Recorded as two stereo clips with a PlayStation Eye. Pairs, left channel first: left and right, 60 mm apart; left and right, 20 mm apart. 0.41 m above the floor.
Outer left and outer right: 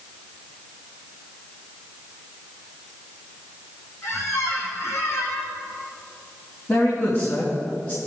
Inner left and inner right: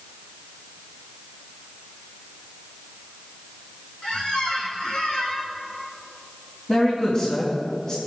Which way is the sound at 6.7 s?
45° left (ahead or behind).